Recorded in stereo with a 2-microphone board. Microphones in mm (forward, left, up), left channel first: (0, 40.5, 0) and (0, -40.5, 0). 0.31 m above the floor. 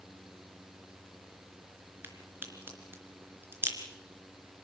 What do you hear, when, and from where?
2.0 s a crack: 30° right (ahead or behind), 3.5 m